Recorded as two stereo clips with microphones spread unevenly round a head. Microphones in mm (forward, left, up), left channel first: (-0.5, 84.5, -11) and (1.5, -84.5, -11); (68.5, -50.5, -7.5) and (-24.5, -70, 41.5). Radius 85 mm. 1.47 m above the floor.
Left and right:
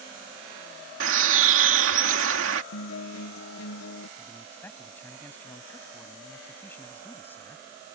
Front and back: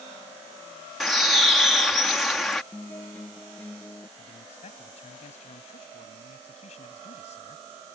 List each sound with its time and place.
1.0 s a bird: 80° right
2.7 s a guitar: 85° left
4.2 s a man speaking: 10° left